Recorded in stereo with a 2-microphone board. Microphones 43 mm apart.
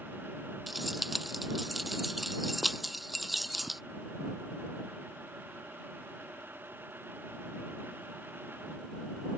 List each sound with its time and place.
0.7 s keys jangling: 5° right (ahead or behind)